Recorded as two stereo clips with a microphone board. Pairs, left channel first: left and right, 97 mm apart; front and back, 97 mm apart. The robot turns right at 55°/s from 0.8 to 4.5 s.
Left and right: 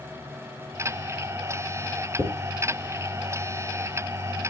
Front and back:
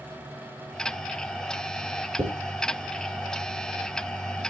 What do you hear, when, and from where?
2.2 s a dropped coin: 165° left, 2.5 m; by 4.5 s 65° right, 2.5 m